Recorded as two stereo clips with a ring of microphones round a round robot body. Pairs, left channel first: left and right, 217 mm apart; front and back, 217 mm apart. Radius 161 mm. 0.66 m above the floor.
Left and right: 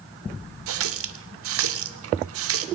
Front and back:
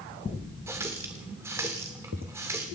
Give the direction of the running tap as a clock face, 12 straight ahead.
3 o'clock.